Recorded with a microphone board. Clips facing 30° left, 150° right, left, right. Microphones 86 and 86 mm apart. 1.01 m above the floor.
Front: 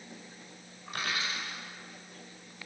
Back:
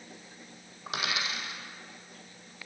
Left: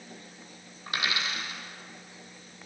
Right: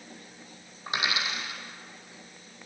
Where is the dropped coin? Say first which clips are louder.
Back 1 dB, right 1 dB; 160° right, 4 m.